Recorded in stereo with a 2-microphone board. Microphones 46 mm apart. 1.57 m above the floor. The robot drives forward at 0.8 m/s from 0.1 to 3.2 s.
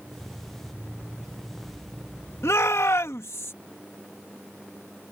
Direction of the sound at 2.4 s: 85° left.